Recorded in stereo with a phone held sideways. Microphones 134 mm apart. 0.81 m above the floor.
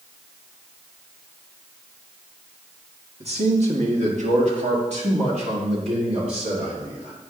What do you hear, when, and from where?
3.2 s a man speaking: 50° right (ahead or behind), 1.6 m